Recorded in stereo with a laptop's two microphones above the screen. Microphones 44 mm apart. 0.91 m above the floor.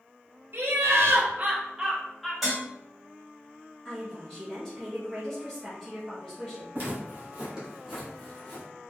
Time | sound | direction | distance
0.5 | laughter | 60° right (ahead or behind) | 0.7 m
2.4 | dishes clattering | 5° right (ahead or behind) | 1.3 m
3.9 | a woman speaking | 10° left (ahead or behind) | 0.9 m
6.8 | footsteps | 40° right (ahead or behind) | 1.5 m